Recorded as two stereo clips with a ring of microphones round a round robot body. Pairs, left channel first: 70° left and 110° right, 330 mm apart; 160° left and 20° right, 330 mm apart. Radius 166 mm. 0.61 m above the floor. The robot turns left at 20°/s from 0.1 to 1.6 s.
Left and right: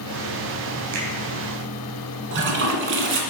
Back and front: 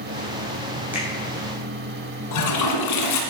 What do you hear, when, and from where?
0.9 s a finger snap: 105° right, 4 m; by 1.1 s 110° right, 4 m
2.3 s a toilet flushing: 170° right, 2.0 m